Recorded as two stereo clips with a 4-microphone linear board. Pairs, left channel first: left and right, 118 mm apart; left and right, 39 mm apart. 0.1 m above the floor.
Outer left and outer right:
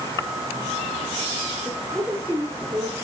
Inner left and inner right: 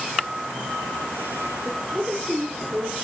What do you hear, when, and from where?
1.6 s a woman speaking: 15° right (ahead or behind), 9 m